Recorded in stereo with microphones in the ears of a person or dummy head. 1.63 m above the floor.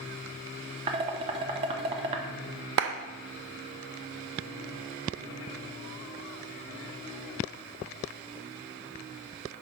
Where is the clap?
65° right (ahead or behind), 0.5 m.